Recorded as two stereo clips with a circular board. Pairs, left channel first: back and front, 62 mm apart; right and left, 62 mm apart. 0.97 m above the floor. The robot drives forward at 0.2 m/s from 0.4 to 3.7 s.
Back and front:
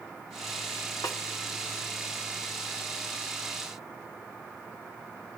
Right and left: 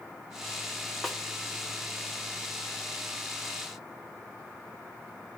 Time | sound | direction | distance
1.0 | a snare drum | 175° right | 1.1 m